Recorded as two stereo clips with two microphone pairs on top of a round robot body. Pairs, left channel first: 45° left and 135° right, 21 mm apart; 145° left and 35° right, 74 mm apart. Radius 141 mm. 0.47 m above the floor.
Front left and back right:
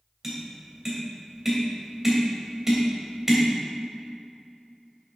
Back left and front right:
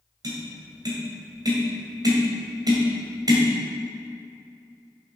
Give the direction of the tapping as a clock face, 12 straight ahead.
2 o'clock.